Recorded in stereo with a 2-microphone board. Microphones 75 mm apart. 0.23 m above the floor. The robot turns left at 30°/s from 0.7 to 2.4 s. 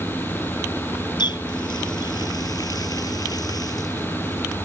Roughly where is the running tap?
Left.